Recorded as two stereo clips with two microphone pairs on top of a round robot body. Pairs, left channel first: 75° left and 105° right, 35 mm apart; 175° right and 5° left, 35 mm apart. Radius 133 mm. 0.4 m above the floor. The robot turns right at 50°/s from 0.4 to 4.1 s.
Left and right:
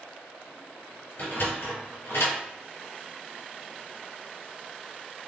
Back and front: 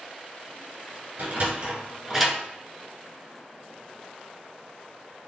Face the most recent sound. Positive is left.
turn(degrees=175)